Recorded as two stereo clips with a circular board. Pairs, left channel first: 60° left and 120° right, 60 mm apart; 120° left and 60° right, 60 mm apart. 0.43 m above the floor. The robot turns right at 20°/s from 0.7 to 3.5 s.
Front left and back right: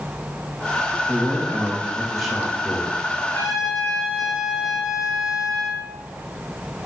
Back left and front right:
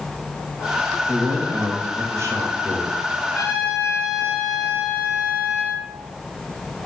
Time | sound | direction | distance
1.1 | a man speaking | 50° right | 2 m
3.3 | a trumpet | 70° left | 3 m